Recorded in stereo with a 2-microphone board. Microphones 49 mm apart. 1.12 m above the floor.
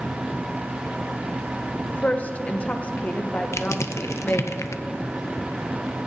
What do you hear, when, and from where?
1.9 s a woman speaking: 30° left (ahead or behind), 0.7 m
3.5 s crushing: 75° left (ahead or behind), 0.5 m